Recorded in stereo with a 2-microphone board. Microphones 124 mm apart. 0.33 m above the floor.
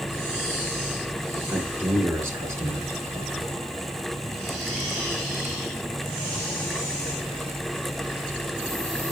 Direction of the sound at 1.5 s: 15° right (ahead or behind).